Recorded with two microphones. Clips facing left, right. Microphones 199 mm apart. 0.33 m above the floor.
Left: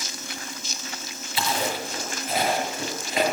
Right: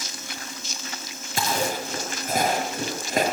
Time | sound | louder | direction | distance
1.4 | chewing | right 1 dB | 50° right (ahead or behind) | 6.5 m